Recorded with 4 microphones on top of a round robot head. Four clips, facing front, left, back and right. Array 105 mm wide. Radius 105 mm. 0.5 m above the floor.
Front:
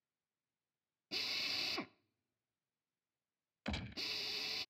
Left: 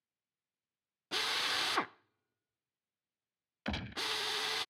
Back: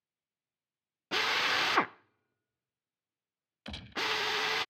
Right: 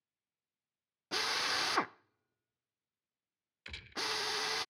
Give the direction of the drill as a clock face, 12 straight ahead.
6 o'clock.